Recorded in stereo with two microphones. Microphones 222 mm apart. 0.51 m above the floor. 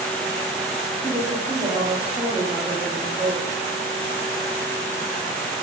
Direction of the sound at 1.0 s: 20° right (ahead or behind).